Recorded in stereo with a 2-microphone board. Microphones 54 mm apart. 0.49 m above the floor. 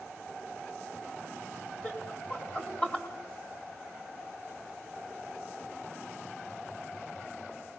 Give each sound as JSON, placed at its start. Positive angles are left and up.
{"t": 1.8, "sound": "laughter", "side_deg": 35, "distance_m": 4.5}